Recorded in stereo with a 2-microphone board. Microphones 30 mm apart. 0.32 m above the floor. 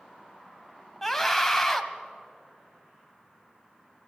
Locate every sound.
1.0 s a scream: centre (ahead or behind), 1.8 m